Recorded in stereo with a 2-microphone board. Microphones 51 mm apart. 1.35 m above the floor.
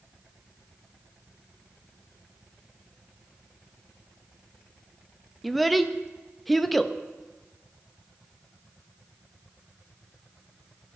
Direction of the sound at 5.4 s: Centre (ahead or behind).